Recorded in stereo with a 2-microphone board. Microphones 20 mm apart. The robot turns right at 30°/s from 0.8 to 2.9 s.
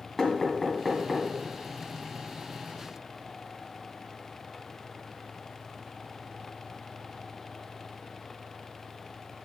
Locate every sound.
0.2 s knocking: centre (ahead or behind), 1.9 m; by 1.3 s 10° right (ahead or behind), 1.9 m